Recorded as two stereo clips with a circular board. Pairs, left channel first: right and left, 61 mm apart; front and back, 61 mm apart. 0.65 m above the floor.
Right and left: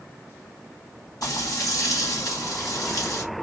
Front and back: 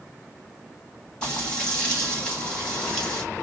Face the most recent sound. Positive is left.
turn(degrees=-75)